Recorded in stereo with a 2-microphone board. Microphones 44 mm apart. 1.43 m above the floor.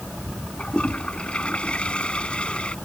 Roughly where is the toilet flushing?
Left.